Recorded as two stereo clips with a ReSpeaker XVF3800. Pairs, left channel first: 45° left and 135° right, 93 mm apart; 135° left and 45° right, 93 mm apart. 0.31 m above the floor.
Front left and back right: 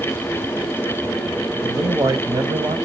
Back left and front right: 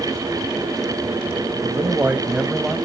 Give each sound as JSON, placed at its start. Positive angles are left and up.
{"t": 1.6, "sound": "a man speaking", "azimuth_deg": -85, "distance_m": 2.0}